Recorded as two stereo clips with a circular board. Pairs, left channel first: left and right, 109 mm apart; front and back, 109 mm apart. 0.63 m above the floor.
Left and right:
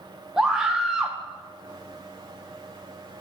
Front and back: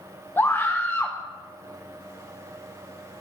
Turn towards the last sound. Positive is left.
turn(degrees=-10)